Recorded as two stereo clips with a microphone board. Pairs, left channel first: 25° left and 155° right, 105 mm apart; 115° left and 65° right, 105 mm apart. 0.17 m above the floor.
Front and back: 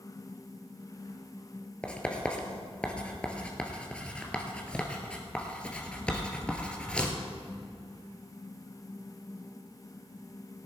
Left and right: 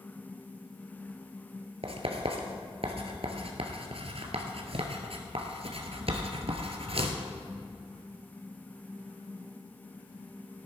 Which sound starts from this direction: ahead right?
Writing, at 1.8 s.